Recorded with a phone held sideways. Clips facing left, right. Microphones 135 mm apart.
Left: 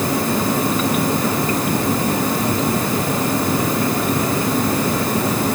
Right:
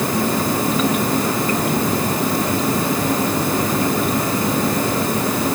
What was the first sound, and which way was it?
Only background noise.